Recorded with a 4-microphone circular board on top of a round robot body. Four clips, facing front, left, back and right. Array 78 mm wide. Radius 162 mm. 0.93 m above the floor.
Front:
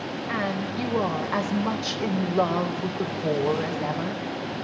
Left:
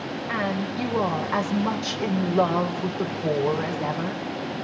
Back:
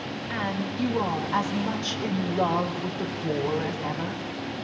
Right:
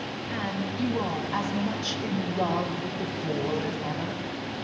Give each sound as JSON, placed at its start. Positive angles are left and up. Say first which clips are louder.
{"t": 0.3, "sound": "a woman speaking", "louder": "left 5 dB, front 2 dB", "azimuth_deg": 55, "distance_m": 5.5}